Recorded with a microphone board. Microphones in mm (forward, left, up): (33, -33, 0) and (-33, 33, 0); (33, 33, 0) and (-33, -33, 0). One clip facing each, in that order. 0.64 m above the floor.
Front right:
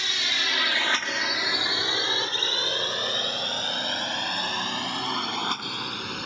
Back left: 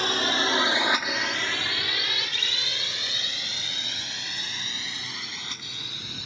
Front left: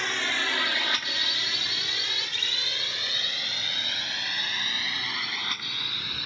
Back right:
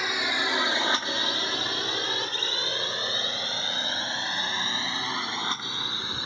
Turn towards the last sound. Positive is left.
turn(degrees=-75)